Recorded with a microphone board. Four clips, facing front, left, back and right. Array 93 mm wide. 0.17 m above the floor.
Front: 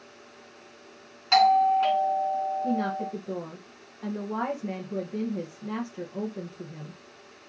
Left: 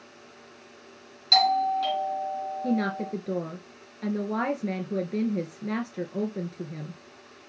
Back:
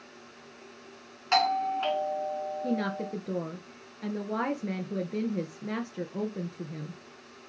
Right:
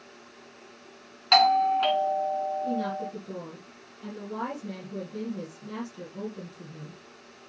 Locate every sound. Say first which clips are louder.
1.3 s a doorbell: right 2 dB, front 7 dB; 95° right, 2 m
2.6 s a woman speaking: left 2 dB, front 3 dB; 115° left, 2 m